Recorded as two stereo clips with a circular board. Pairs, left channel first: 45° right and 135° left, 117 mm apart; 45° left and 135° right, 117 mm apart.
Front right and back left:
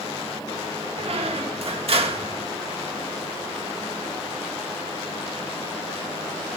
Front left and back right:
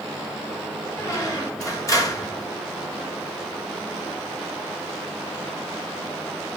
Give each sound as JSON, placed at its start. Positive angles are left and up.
{"t": 1.0, "sound": "a squeak", "azimuth_deg": 105, "distance_m": 1.6}